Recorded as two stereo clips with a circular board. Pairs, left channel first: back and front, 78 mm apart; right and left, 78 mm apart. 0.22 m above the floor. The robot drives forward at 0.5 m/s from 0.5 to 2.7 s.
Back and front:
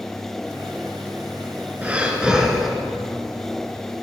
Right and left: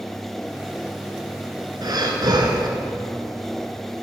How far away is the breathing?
About 1.6 m.